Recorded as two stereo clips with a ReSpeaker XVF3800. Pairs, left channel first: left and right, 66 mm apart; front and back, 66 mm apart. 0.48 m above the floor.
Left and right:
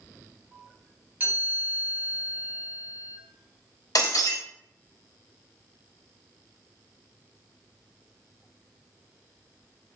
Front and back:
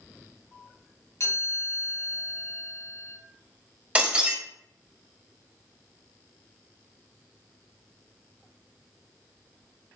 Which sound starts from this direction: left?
Breaking glass, at 4.0 s.